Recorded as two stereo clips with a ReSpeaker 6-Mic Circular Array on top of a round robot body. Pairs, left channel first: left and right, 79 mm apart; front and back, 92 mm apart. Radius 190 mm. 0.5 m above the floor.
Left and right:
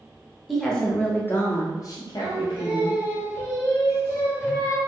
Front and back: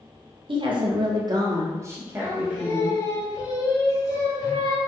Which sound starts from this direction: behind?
A woman speaking, at 0.5 s.